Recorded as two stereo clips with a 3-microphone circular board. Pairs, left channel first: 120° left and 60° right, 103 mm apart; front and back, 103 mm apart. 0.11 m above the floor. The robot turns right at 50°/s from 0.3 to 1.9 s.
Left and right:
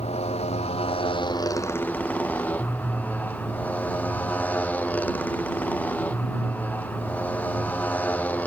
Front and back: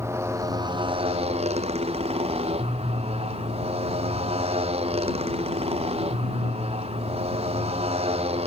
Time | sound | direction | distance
0.0 | a motorcycle | 115° left | ?